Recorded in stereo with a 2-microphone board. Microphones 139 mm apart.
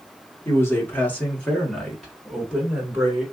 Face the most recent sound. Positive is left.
turn(degrees=-10)  # may be behind; listen again after turning